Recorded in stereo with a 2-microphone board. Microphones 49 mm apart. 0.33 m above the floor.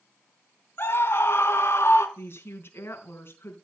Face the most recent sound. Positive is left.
turn(degrees=45)  # may be behind; listen again after turning